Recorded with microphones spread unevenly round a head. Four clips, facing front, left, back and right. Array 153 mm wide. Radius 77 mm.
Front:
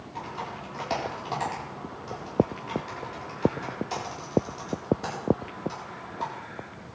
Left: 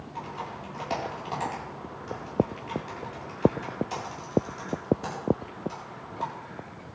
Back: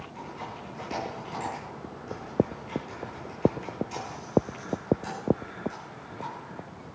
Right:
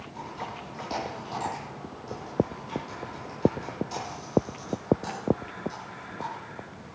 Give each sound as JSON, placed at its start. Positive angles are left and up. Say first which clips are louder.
{"t": 0.1, "sound": "typing on a keyboard", "louder": "left 1 dB, front 5 dB", "azimuth_deg": 25, "distance_m": 8.5}